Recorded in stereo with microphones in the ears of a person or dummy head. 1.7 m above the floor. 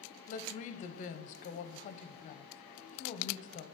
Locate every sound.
0.3 s a woman speaking: 40° left (ahead or behind), 0.7 m